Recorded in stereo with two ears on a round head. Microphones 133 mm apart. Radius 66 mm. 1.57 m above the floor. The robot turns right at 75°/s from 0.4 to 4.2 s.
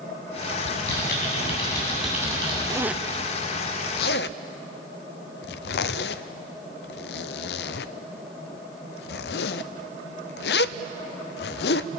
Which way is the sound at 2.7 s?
25° right (ahead or behind).